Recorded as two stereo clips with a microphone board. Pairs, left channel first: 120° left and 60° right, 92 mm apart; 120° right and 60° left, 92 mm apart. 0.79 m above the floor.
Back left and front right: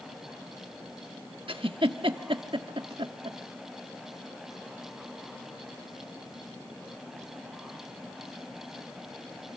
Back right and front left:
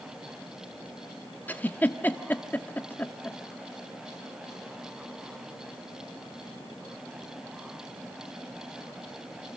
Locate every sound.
1.5 s a giggle: 50° right, 1.2 m